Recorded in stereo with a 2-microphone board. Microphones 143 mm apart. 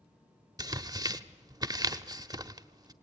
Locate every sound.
0.6 s tearing paper: 30° right (ahead or behind), 0.7 m